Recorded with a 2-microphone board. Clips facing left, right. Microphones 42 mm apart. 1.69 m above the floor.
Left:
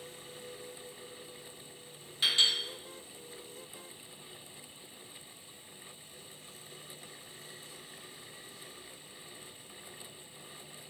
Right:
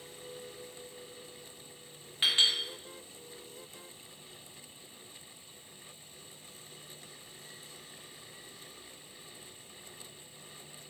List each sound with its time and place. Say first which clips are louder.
2.2 s a clink: right 1 dB; 35° right (ahead or behind), 0.8 m